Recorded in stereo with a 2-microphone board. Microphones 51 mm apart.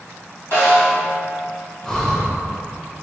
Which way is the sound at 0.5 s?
45° left (ahead or behind).